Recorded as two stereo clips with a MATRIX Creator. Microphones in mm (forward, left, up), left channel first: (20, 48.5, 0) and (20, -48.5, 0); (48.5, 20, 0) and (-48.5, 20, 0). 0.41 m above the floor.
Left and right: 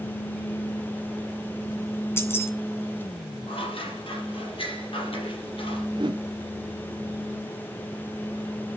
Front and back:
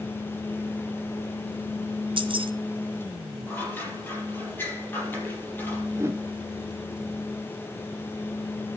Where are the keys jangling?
155° left, 2.5 m.